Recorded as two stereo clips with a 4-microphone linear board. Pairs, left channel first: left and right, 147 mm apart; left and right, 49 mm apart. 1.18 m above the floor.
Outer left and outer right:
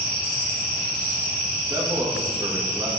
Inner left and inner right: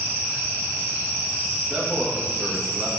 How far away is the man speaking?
About 1.8 m.